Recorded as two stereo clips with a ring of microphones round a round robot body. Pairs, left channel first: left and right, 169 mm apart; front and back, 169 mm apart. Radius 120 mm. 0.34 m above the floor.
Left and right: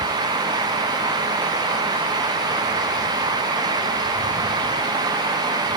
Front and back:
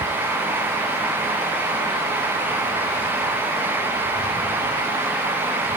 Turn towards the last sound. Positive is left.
No sound to turn to.